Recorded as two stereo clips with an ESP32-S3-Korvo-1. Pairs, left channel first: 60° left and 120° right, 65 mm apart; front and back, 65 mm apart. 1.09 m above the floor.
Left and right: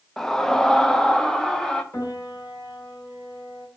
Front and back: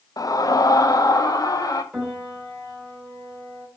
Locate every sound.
0.2 s a scream: 20° right, 0.9 m
1.9 s a piano: 105° left, 4 m